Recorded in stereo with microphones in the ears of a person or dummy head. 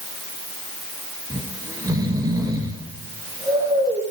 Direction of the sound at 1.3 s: 20° right (ahead or behind).